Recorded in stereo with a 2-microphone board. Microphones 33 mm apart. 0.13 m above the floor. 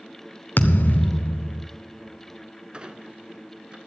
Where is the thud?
75° left (ahead or behind), 1.0 m.